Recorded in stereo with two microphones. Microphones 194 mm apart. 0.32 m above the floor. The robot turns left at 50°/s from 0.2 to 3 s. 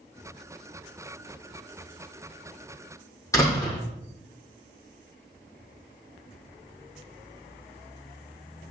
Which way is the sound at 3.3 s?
15° left (ahead or behind).